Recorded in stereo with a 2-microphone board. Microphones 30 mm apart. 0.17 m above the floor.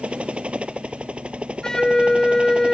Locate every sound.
0.0 s a helicopter: 35° right (ahead or behind)
1.6 s a flute: 15° left (ahead or behind)